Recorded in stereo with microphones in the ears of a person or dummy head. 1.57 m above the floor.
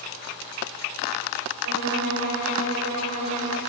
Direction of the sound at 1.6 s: 65° right (ahead or behind).